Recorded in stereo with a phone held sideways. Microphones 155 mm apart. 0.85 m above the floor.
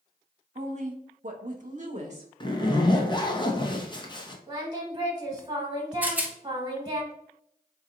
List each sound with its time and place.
0.6 s a woman speaking: 45° right (ahead or behind), 1.1 m
2.4 s a zipper: 30° left (ahead or behind), 0.7 m
4.5 s singing: 25° right (ahead or behind), 1.5 m
6.0 s a rattle: 10° right (ahead or behind), 0.9 m